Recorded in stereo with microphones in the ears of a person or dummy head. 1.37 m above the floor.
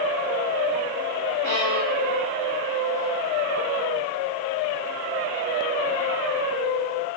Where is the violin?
80° right, 3.5 m.